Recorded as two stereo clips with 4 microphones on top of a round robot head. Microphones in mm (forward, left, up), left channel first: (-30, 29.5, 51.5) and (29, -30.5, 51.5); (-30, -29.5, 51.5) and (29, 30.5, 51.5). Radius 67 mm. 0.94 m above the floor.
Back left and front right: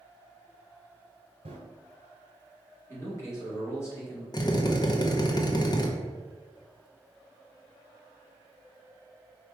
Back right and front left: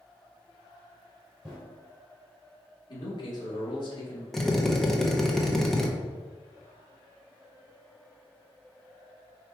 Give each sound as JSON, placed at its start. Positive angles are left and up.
{"t": 1.4, "sound": "running footsteps", "azimuth_deg": -40, "distance_m": 1.2}
{"t": 2.9, "sound": "a man speaking", "azimuth_deg": -170, "distance_m": 2.0}
{"t": 4.3, "sound": "a drill", "azimuth_deg": 140, "distance_m": 0.8}